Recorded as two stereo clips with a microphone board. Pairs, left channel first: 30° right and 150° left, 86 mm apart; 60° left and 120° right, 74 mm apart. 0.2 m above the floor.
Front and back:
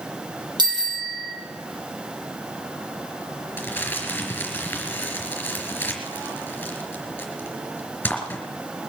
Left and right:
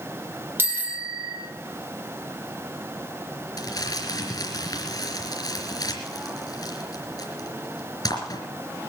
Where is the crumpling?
40° left, 3 m.